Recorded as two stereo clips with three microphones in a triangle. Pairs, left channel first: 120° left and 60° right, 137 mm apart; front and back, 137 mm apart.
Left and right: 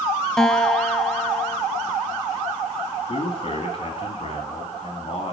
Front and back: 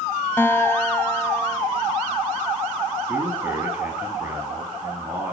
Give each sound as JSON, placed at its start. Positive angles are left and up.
{"t": 0.4, "sound": "a guitar", "azimuth_deg": 40, "distance_m": 0.5}
{"t": 3.1, "sound": "a man speaking", "azimuth_deg": 110, "distance_m": 1.7}